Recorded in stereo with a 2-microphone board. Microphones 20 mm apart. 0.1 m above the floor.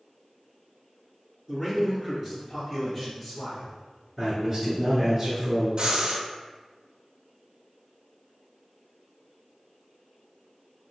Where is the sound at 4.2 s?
20° right (ahead or behind), 1.1 m.